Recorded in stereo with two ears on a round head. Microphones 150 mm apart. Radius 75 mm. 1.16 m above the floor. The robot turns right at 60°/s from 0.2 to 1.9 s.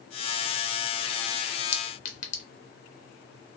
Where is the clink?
35° left (ahead or behind), 0.8 m; by 2.4 s 45° left (ahead or behind), 0.8 m.